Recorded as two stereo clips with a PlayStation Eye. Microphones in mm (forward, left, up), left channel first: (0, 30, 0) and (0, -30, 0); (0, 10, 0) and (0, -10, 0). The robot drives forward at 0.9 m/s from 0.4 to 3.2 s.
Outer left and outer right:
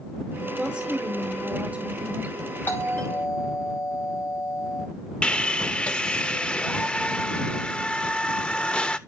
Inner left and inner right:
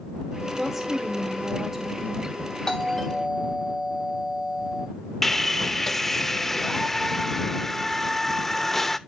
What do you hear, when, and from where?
0.6 s a woman speaking: 15° right (ahead or behind), 3 m; by 2.4 s 35° right (ahead or behind), 1.4 m
2.7 s a doorbell: 35° left (ahead or behind), 6 m
5.2 s sawing: 20° left (ahead or behind), 0.7 m